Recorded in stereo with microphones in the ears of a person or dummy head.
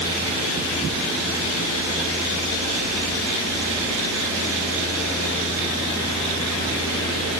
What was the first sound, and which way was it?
Only background noise.